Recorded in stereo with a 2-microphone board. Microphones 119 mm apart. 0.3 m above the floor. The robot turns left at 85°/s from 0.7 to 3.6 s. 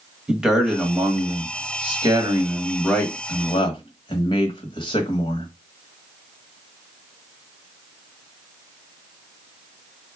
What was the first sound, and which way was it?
A man speaking, 5° right.